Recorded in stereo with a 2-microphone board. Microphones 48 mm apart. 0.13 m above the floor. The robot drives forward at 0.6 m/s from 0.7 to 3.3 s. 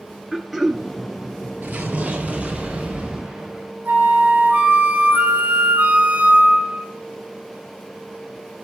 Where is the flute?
35° right (ahead or behind), 1.2 m.